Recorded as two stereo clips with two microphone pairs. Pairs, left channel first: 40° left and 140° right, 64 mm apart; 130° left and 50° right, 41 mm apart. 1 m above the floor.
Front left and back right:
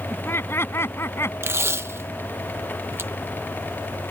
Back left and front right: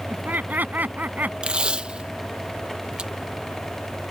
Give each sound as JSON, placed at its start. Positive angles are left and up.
{"t": 0.1, "sound": "laughter", "azimuth_deg": -10}
{"t": 1.4, "sound": "tape being pulled", "azimuth_deg": -110}